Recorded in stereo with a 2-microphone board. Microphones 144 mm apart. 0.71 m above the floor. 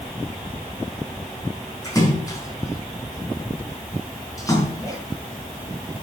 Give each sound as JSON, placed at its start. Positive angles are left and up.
{"t": 1.8, "sound": "a splash", "side_deg": 25, "distance_m": 6.0}